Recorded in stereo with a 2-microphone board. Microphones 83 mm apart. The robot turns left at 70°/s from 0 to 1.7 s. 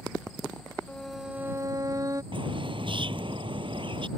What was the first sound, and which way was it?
A violin, 15° left.